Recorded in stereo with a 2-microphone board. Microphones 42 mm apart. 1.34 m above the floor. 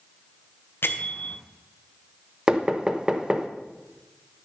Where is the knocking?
15° right (ahead or behind), 1.0 m.